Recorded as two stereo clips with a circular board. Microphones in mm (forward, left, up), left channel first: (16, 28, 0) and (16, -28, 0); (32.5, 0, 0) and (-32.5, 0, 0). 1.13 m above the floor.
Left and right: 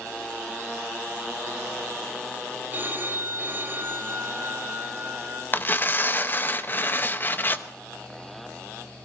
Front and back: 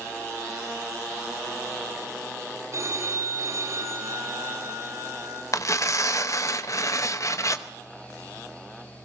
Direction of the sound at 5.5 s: 35° left.